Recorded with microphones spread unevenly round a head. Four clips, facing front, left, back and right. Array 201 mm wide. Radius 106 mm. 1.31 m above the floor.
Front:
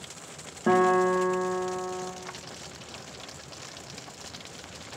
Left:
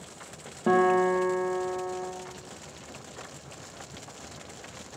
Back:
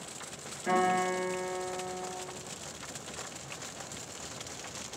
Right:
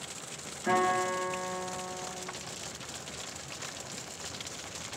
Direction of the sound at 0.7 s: 50° left.